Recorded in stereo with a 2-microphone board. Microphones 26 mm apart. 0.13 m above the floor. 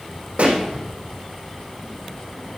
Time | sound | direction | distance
0.4 | a pop | 65° right (ahead or behind) | 3 m